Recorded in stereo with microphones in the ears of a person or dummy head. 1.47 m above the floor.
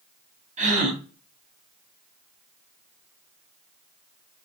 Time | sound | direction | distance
0.6 | a gasp | 40° right (ahead or behind) | 0.7 m